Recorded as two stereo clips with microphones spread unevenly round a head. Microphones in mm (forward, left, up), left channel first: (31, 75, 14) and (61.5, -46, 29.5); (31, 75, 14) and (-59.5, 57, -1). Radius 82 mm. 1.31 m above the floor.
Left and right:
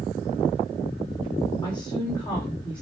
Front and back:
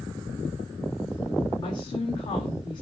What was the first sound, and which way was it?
A woman speaking, 50° left.